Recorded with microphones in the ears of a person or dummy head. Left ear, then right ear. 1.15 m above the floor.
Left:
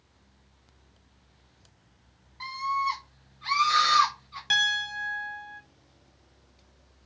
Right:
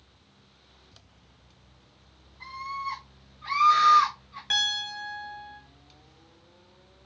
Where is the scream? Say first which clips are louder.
Left 6 dB; 55° left (ahead or behind), 0.9 m; by 4.4 s 15° left (ahead or behind), 1.1 m.